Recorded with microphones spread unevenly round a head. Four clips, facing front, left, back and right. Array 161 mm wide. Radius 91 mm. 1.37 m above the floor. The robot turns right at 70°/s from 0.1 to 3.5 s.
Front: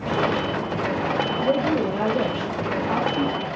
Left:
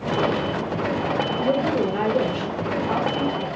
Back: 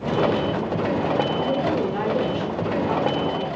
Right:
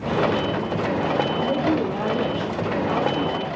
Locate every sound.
1.3 s a woman speaking: 45° left, 4.5 m; by 3.5 s 165° right, 4.5 m